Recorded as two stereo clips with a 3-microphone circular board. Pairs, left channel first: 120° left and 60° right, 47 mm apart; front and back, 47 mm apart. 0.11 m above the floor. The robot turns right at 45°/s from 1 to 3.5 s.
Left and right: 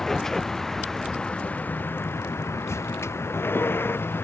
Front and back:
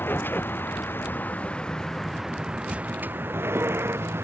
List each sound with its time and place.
0.0 s a vehicle: 40° left; by 4.2 s 150° left